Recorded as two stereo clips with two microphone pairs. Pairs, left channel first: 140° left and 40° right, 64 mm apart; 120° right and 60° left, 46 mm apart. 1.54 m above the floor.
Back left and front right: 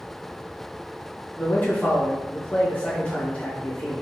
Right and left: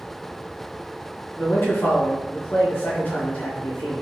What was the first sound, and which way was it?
A man speaking, 160° right.